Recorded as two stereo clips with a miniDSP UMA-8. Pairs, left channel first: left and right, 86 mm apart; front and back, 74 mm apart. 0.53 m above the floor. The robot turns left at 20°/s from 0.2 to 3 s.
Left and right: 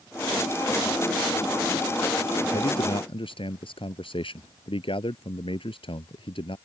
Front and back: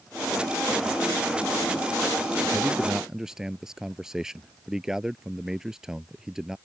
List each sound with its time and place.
2.5 s a man speaking: 110° left; by 6.6 s 100° left